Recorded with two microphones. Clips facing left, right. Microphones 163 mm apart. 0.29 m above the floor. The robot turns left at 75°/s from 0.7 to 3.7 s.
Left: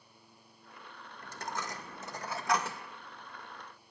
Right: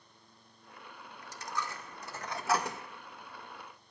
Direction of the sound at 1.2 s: 65° left (ahead or behind).